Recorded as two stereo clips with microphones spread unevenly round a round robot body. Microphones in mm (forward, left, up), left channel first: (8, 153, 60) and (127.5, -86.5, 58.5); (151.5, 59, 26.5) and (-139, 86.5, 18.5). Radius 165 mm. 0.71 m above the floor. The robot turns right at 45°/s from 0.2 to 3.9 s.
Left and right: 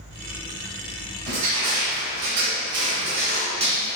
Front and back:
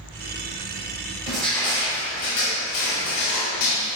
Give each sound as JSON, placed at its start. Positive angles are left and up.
{"t": 1.3, "sound": "crushing", "azimuth_deg": -100, "distance_m": 3.0}